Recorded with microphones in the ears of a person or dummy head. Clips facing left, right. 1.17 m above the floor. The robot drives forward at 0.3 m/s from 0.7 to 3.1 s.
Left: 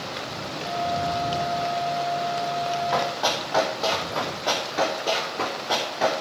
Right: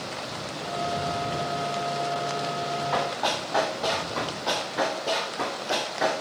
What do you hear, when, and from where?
2.9 s running footsteps: 5° left (ahead or behind), 1.6 m; by 6.2 s 15° right (ahead or behind), 3 m